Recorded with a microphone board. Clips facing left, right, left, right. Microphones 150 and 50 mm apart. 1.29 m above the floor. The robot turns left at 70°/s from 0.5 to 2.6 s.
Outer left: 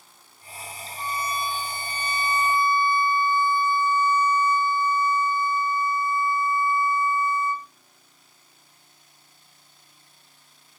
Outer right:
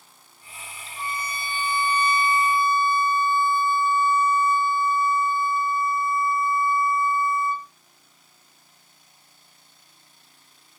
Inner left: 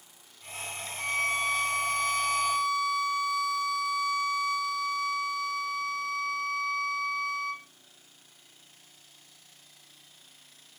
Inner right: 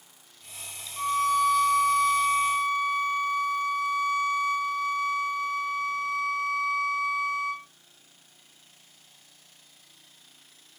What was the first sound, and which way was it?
A violin, 45° right.